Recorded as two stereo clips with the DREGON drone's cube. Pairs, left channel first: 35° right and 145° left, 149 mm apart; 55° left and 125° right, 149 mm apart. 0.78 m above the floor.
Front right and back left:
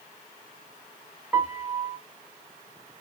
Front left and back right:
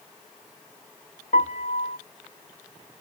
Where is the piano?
70° left, 0.5 m.